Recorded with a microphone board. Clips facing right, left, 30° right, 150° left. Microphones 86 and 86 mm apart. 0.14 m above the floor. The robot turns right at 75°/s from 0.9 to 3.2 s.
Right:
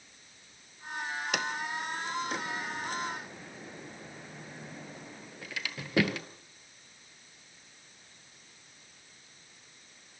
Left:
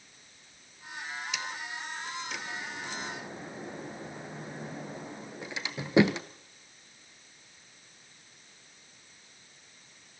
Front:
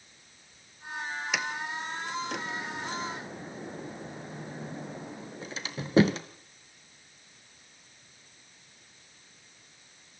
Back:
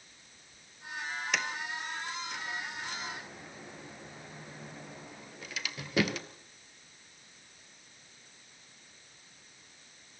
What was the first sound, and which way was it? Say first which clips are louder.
A sliding door: right 5 dB, front 2 dB; 115° right.